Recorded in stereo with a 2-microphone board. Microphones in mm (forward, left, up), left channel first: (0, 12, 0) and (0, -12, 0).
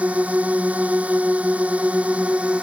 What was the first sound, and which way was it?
A drone, 70° right (ahead or behind).